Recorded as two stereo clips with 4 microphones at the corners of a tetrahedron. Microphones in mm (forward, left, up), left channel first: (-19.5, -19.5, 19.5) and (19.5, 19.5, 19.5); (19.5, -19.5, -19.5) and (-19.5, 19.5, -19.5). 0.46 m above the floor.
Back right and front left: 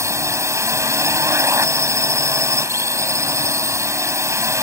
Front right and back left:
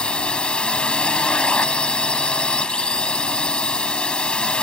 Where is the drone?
25° left.